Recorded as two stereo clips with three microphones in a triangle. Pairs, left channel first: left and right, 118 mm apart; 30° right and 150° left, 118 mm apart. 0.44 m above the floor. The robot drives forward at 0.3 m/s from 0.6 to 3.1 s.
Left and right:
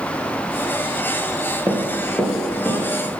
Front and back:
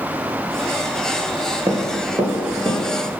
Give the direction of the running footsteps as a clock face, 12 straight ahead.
5 o'clock.